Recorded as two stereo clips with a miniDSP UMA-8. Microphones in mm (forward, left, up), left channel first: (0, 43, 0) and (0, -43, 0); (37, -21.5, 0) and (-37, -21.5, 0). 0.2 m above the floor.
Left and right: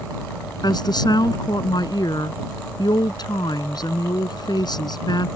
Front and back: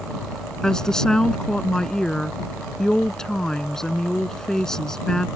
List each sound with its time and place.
0.6 s a woman speaking: 80° left